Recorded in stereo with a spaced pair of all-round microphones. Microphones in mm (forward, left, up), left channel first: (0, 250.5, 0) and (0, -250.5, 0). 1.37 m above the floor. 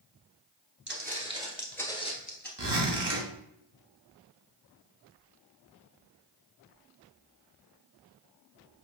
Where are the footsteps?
25° right (ahead or behind), 1.5 m; by 2.5 s 20° left (ahead or behind), 1.6 m.